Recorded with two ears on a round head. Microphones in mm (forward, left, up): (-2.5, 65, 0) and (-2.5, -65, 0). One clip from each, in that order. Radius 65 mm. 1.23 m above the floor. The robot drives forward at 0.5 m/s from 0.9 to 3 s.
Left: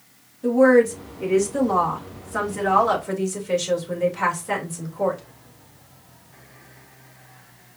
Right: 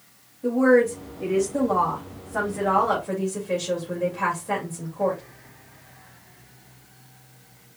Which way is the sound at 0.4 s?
75° left (ahead or behind).